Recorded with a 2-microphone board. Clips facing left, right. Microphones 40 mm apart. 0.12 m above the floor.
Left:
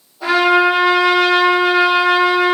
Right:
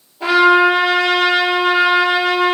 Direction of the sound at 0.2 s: 45° right (ahead or behind).